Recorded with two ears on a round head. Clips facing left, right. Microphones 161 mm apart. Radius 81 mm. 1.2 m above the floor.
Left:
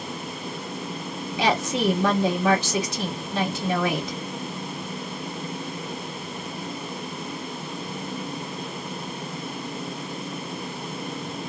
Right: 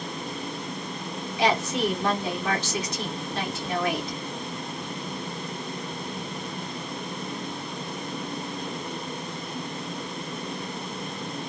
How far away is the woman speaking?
About 1.6 m.